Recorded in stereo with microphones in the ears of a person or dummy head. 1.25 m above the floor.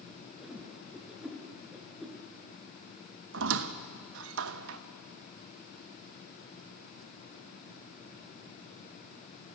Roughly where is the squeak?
Right.